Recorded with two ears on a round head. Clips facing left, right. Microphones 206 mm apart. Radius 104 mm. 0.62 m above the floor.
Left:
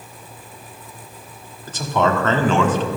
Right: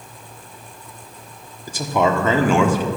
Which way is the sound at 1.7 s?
10° right (ahead or behind).